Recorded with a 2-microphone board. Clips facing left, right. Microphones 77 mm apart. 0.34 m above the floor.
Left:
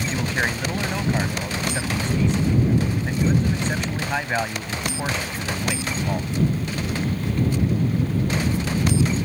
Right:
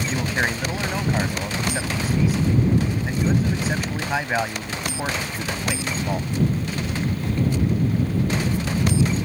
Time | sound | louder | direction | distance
0.1 | a man speaking | right 1 dB | 5° right (ahead or behind) | ?